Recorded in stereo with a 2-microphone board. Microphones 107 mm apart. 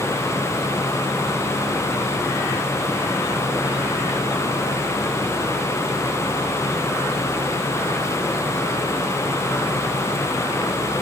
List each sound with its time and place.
Only background noise.